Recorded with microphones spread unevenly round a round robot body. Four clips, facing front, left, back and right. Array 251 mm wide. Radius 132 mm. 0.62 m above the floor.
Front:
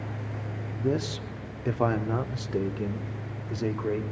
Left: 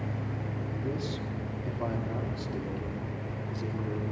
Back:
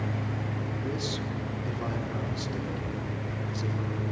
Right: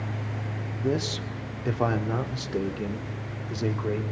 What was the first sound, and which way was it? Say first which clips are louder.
A man speaking: right 9 dB, front 9 dB; 35° right.